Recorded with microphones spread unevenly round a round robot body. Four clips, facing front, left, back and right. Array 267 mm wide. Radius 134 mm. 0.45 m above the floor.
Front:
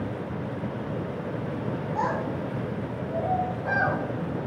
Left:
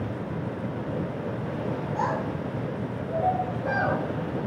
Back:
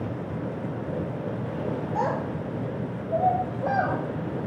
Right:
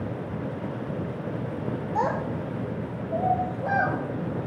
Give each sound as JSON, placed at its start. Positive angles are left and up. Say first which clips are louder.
{"t": 1.9, "sound": "a child speaking", "louder": "right 3 dB, front 1 dB", "azimuth_deg": -125, "distance_m": 0.7}